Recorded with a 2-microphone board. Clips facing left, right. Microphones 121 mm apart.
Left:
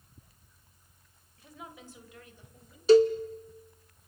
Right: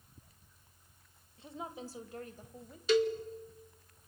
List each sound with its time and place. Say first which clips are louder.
1.4 s a woman speaking: right 5 dB; 25° right (ahead or behind), 1.4 m; by 2.8 s 45° right (ahead or behind), 1.9 m
2.9 s a cowbell: left 9 dB; 35° left (ahead or behind), 0.7 m